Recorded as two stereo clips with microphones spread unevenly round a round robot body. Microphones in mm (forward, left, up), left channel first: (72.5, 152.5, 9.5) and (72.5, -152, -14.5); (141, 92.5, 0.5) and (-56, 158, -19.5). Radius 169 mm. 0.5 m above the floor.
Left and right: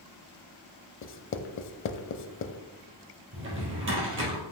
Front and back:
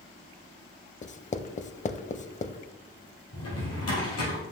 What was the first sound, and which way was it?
Writing, 40° left.